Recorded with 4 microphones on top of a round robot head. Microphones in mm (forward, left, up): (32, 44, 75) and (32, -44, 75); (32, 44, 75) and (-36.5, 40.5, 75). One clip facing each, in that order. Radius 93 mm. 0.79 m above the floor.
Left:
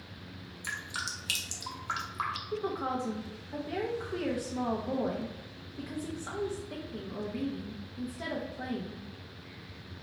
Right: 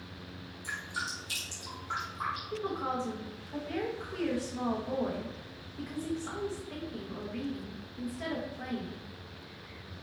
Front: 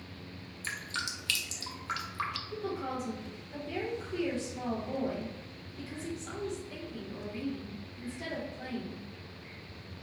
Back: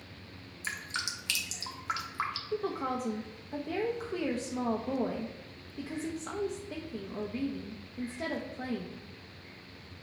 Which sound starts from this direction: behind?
A woman speaking, at 2.5 s.